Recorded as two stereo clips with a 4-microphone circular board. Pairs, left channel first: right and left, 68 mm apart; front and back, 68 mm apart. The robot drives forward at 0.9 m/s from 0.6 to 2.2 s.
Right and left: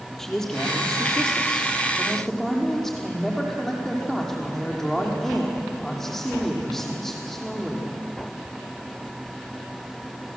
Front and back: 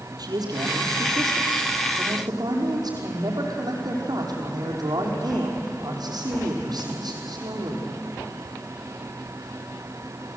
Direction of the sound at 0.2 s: 175° right.